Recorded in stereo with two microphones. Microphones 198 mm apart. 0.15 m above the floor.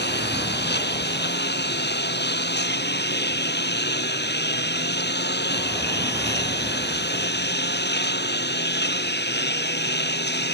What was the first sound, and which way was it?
A lawn mower, 55° left (ahead or behind).